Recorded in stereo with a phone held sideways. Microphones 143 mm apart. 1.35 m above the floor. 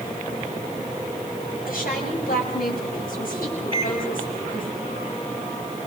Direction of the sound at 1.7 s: 85° left.